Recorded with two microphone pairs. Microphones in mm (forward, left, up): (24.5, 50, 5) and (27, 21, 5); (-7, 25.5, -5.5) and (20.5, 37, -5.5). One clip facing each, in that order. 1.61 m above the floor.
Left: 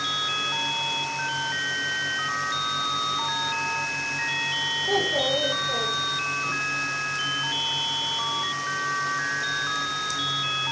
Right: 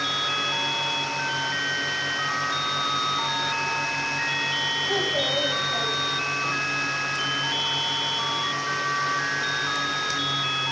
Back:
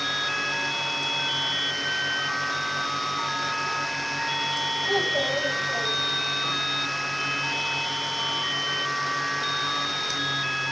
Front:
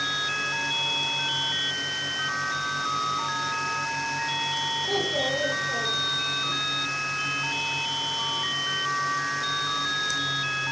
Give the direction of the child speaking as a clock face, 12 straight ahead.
9 o'clock.